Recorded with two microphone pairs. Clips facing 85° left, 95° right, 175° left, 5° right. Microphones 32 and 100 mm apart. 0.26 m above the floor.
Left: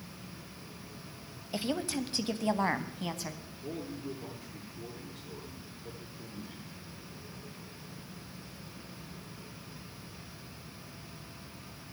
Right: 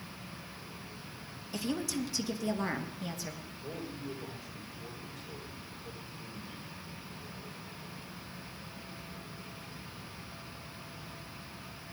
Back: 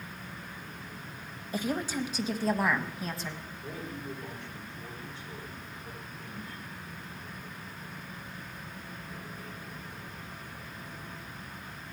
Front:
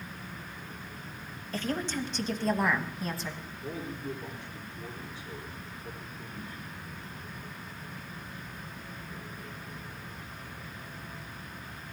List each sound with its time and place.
1.5 s a woman speaking: 110° left, 1.0 m; by 3.4 s 85° left, 1.8 m
3.6 s a man speaking: 70° left, 5.5 m